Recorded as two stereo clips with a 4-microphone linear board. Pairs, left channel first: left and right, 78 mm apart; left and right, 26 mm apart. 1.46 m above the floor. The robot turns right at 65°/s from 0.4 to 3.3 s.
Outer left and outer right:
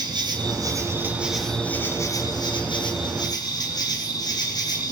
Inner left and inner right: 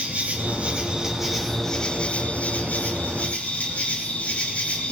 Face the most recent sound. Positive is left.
turn(degrees=125)